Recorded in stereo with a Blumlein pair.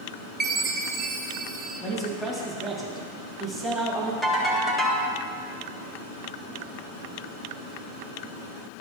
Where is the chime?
20° right, 0.7 m.